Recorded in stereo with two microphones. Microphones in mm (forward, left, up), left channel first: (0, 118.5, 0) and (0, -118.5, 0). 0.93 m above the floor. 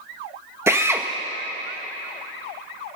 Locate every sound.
0.7 s a drill: 10° right (ahead or behind), 1.0 m